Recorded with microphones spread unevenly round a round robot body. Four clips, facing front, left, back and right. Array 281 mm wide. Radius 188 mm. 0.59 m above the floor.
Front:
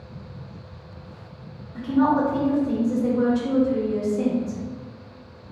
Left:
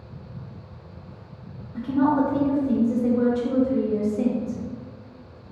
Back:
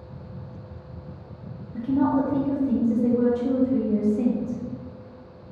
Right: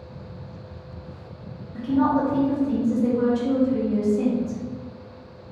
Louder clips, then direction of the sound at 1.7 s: Even, front 2 dB; 175° right.